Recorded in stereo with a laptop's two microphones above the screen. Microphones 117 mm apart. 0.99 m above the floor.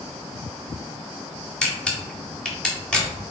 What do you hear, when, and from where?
1.6 s a camera shutter: 5° left (ahead or behind), 3 m